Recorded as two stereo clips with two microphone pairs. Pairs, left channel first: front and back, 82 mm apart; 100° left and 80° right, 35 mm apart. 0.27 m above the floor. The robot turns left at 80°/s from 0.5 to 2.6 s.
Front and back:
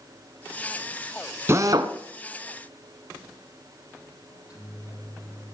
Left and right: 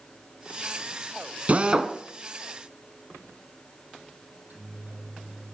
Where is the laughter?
I don't hear laughter.